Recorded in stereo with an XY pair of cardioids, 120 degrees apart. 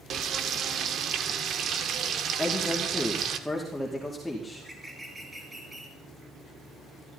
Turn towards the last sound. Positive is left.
turn(degrees=-10)